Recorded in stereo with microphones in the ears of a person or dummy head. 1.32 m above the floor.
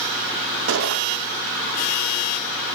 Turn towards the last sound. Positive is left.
turn(degrees=-65)  # may be behind; listen again after turning